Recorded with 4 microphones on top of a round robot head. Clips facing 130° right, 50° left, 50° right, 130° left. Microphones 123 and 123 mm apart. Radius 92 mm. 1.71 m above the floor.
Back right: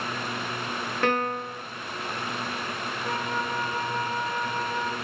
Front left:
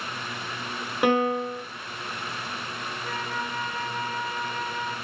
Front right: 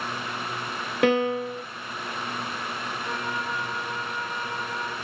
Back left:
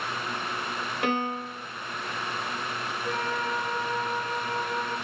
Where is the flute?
85° right, 4.5 m.